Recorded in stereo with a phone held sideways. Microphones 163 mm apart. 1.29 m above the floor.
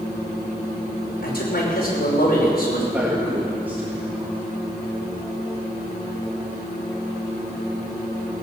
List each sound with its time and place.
1.2 s a man speaking: 75° left (ahead or behind), 5.5 m
2.9 s a man speaking: 10° right (ahead or behind), 2.5 m